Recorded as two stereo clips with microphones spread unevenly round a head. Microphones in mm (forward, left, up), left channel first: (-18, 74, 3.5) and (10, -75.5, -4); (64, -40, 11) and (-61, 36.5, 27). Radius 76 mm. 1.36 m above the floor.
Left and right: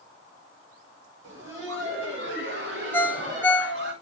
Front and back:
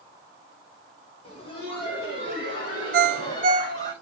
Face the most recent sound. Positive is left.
turn(degrees=175)